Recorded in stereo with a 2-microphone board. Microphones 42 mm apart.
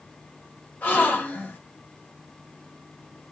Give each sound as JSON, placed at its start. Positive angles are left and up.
{"t": 0.8, "sound": "a gasp", "side_deg": 45, "distance_m": 1.7}